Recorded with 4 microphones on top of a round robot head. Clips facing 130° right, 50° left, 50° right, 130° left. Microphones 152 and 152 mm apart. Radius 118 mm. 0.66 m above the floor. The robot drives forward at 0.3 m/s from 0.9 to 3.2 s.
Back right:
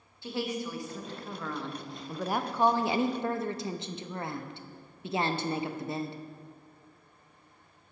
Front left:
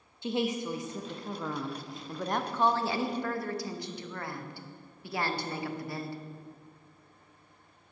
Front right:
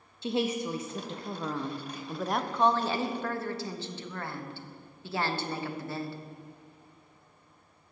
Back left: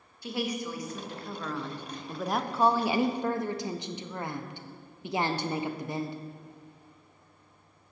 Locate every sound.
0.2 s a woman speaking: 5° right, 0.7 m; by 6.2 s 175° right, 0.6 m